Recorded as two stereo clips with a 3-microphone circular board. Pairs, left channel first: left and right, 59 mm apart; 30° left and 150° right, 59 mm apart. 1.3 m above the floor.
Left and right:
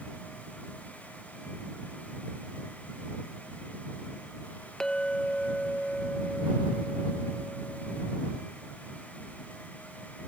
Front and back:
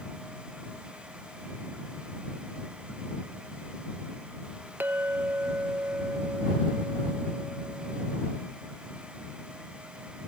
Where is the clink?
165° left.